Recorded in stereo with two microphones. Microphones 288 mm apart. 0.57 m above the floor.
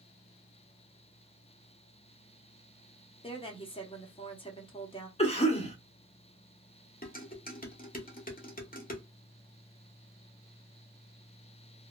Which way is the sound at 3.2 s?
20° left (ahead or behind).